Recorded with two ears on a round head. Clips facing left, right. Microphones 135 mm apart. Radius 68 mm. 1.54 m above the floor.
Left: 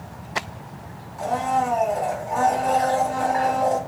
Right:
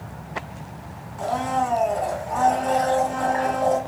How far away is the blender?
About 1.7 m.